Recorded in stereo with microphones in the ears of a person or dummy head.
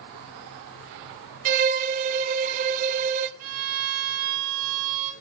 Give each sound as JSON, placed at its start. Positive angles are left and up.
{"t": 1.4, "sound": "a violin", "side_deg": -45, "distance_m": 1.5}
{"t": 3.4, "sound": "a violin", "side_deg": -80, "distance_m": 6.0}